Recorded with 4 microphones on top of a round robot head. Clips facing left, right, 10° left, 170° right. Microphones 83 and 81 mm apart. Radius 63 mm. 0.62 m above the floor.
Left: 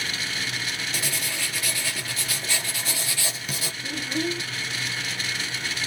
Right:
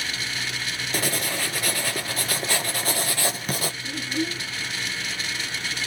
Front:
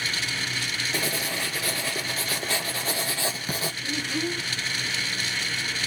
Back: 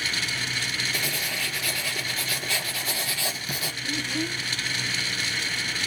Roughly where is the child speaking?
Left.